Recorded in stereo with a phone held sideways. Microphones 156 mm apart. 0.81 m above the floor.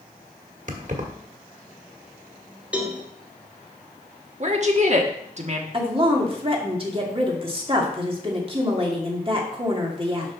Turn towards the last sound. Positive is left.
turn(degrees=-35)  # may be behind; listen again after turning